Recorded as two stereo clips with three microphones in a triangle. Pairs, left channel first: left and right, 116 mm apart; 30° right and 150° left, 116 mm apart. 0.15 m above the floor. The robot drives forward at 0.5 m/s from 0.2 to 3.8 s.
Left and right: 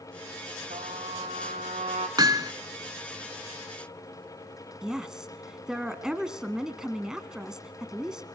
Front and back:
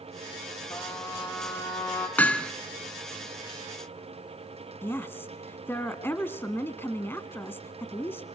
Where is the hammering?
95° right, 1.2 m; by 2.5 s 110° right, 1.2 m.